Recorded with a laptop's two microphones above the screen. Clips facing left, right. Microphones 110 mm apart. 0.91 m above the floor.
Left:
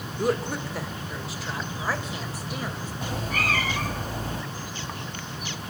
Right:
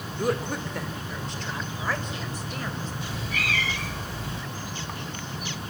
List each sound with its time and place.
0.2 s a woman speaking: centre (ahead or behind), 2.5 m; by 2.9 s 10° left (ahead or behind), 5 m
3.0 s a cat meowing: 45° left (ahead or behind), 1.6 m